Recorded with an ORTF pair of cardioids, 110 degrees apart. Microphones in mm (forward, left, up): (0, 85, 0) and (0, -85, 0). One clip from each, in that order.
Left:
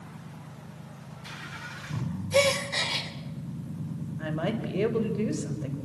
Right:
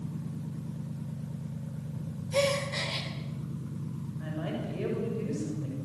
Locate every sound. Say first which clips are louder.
2.3 s a gasp: left 4 dB; 35° left, 3 m
4.2 s a woman speaking: left 6 dB; 55° left, 6 m